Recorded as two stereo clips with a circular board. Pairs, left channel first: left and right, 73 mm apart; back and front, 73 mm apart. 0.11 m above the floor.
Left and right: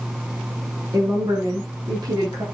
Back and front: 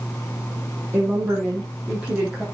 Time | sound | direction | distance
0.9 | a woman speaking | 60° right | 5.5 m